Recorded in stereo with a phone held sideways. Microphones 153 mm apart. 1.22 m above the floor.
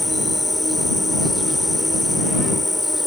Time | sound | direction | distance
0.0 | an insect | centre (ahead or behind) | ?